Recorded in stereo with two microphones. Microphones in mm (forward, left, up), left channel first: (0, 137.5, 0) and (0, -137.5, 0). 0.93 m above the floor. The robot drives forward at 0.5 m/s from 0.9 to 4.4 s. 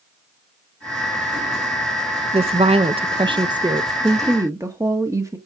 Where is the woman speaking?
20° right (ahead or behind), 0.6 m; by 5.4 s 10° right (ahead or behind), 1.1 m.